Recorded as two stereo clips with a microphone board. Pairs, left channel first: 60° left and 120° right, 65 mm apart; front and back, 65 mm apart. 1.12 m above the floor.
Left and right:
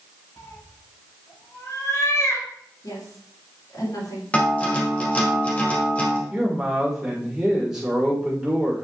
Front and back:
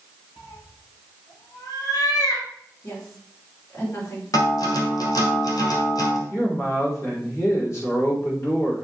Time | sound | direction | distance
0.4 | a cat meowing | 20° left | 4 m
2.8 | a woman speaking | 40° left | 3.5 m
4.3 | a guitar | 10° right | 1.7 m
6.3 | a man speaking | 40° right | 4 m